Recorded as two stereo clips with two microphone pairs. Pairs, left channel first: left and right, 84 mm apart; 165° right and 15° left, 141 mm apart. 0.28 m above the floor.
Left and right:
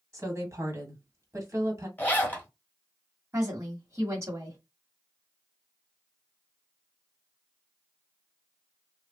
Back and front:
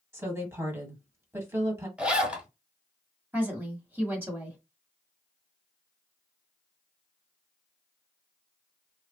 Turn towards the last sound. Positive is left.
turn(degrees=-50)